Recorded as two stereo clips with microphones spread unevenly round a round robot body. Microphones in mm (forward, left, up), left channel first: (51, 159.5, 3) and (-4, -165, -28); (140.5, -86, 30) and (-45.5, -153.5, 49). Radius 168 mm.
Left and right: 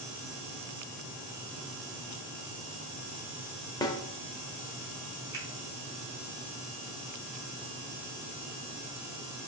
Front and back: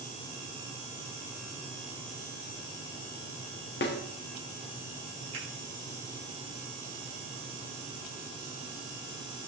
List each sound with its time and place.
3.8 s a snare drum: straight ahead, 1.2 m
5.3 s a finger snap: straight behind, 3.5 m